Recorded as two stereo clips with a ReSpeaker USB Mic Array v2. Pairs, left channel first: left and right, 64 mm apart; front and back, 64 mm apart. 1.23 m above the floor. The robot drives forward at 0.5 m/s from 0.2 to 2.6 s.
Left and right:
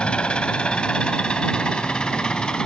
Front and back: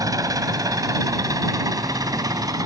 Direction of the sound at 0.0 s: 165° left.